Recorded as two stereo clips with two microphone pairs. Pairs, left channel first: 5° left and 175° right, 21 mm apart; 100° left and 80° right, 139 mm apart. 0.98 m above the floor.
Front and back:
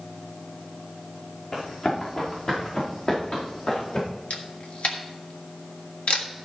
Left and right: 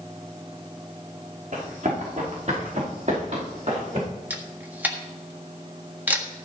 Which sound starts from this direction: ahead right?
Running footsteps, at 1.5 s.